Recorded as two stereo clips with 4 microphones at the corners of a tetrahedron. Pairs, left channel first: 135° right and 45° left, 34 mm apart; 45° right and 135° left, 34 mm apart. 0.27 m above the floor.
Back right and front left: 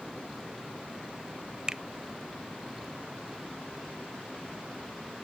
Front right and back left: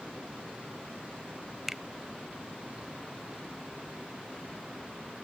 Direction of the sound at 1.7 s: 65° left.